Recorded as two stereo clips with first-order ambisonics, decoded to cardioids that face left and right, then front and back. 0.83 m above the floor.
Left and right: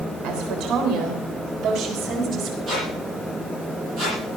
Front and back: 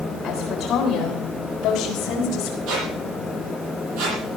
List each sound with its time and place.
0.2 s a woman speaking: 70° right, 3 m; by 2.6 s 35° right, 4 m
2.7 s a squeak: 150° right, 8.5 m